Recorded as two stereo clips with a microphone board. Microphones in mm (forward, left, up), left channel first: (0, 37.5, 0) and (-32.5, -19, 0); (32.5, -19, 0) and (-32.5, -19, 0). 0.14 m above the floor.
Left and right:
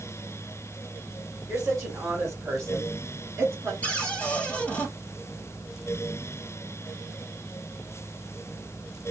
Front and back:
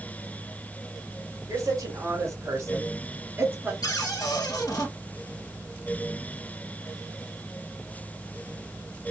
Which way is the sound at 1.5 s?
165° right.